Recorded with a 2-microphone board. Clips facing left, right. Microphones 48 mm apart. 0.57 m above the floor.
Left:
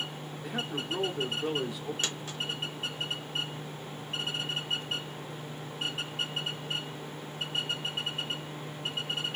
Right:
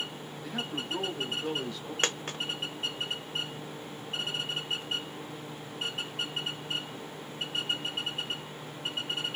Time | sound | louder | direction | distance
0.4 | a man speaking | left 1 dB | 10° left (ahead or behind) | 1.4 m
2.0 | a dropped coin | right 4 dB | 50° right (ahead or behind) | 0.6 m